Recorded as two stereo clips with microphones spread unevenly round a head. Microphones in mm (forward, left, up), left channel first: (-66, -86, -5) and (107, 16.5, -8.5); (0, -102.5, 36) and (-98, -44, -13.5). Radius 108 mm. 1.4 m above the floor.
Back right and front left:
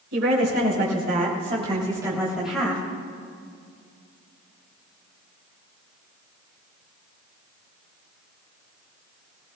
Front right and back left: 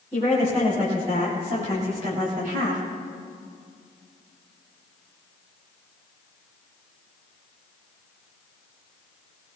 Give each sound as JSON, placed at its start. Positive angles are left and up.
{"t": 0.1, "sound": "a woman speaking", "azimuth_deg": 70, "distance_m": 4.5}